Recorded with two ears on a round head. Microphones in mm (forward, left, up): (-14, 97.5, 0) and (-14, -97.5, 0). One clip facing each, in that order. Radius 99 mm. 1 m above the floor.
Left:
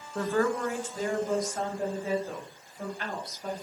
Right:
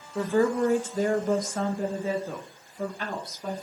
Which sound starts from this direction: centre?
A woman speaking, at 0.1 s.